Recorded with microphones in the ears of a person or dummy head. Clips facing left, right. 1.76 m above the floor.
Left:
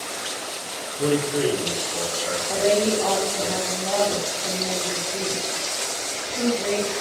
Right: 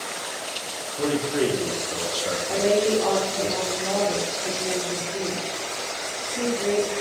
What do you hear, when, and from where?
1.0 s a man speaking: 70° right (ahead or behind), 1.1 m; by 3.5 s 10° right (ahead or behind), 1.0 m
2.5 s a woman speaking: centre (ahead or behind), 1.8 m